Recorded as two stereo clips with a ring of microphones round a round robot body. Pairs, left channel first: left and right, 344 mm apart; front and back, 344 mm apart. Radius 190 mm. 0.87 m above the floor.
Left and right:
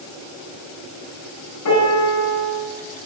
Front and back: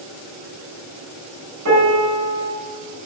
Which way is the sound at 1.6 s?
135° left.